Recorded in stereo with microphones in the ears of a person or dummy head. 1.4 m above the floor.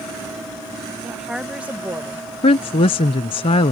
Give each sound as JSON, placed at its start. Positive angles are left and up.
{"t": 1.0, "sound": "a woman speaking", "side_deg": 0}
{"t": 2.4, "sound": "a woman speaking", "side_deg": 25}